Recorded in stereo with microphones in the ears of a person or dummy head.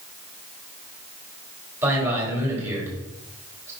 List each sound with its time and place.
1.8 s a man speaking: 15° right (ahead or behind), 4 m